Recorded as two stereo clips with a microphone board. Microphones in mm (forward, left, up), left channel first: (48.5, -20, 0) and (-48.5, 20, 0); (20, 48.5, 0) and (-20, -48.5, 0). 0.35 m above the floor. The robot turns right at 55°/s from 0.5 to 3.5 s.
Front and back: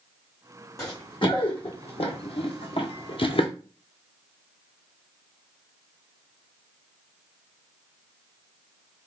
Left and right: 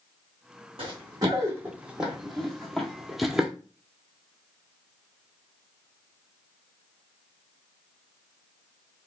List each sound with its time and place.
0.8 s running footsteps: 80° right, 1.4 m; by 3.5 s 30° right, 0.6 m